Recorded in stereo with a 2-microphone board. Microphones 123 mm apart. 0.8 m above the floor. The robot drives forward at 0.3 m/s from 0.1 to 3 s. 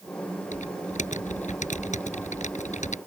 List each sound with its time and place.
0.5 s typing on a keyboard: 75° left (ahead or behind)